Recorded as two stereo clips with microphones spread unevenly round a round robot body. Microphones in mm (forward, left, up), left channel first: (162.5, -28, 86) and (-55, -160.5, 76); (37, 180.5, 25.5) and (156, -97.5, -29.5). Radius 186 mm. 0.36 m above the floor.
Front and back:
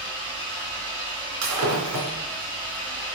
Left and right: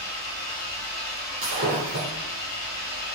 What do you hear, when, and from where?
0.0 s an engine running: 135° left, 2 m
1.4 s breaking glass: 140° right, 2.5 m